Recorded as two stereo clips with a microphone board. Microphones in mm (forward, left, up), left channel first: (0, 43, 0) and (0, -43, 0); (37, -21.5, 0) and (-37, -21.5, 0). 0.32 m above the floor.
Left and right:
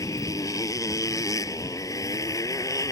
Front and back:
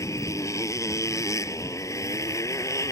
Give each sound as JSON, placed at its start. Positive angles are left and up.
{"t": 0.0, "sound": "a motorcycle", "azimuth_deg": 45}